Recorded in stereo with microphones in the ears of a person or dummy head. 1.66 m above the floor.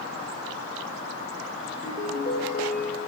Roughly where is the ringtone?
Left.